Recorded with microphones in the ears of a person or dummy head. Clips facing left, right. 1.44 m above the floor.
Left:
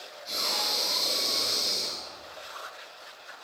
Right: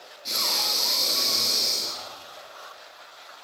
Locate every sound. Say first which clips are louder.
0.2 s breathing: right 1 dB; 75° right (ahead or behind), 2.5 m